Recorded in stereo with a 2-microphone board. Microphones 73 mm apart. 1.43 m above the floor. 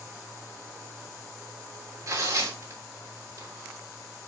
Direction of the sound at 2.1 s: 55° right (ahead or behind).